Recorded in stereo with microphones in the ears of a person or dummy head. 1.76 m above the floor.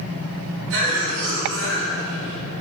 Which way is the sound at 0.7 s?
65° right (ahead or behind).